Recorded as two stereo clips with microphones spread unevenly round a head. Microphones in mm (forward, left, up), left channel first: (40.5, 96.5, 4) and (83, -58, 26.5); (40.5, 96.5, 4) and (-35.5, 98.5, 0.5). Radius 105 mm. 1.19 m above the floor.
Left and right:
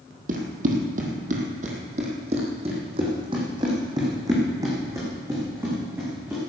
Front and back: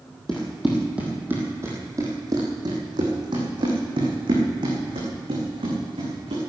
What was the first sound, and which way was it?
Running footsteps, 85° right.